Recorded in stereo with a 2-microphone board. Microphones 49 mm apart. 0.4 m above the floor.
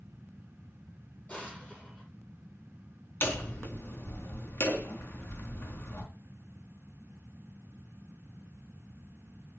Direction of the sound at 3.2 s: 50° left (ahead or behind).